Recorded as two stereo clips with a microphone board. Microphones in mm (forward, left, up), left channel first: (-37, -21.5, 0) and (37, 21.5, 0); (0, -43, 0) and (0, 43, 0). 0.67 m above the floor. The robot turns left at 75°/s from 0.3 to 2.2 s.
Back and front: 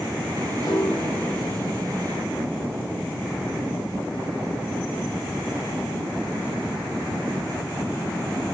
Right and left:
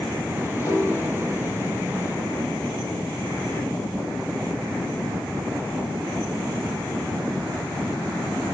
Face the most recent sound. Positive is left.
turn(degrees=105)